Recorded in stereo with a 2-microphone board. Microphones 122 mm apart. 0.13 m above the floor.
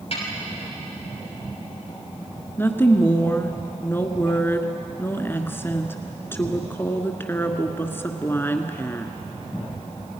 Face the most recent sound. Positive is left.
turn(degrees=20)  # may be behind; listen again after turning